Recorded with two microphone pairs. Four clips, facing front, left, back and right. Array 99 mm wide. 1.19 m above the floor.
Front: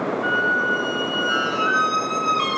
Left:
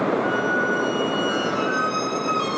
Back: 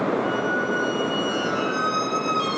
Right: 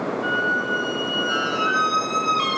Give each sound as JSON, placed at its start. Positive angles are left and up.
{"t": 0.2, "sound": "a squeak", "azimuth_deg": -20, "distance_m": 5.0}